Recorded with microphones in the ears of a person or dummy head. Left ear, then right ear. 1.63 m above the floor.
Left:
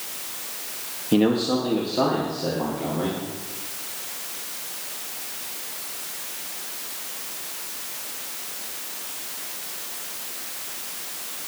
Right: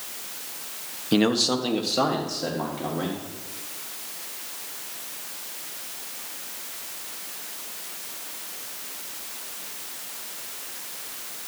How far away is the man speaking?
About 1.3 m.